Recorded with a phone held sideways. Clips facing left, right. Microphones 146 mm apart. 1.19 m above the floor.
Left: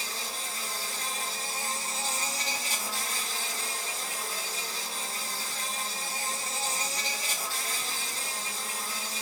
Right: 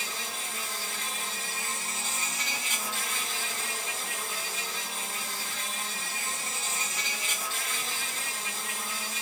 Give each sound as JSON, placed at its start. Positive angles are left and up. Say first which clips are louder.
{"t": 0.0, "sound": "an insect", "louder": "even", "side_deg": 35, "distance_m": 1.9}